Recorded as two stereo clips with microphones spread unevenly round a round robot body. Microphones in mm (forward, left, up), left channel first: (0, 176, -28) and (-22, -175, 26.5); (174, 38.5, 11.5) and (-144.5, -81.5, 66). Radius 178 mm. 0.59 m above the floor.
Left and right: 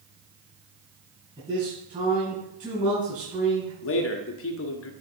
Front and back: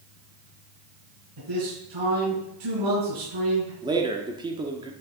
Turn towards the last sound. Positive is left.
turn(degrees=120)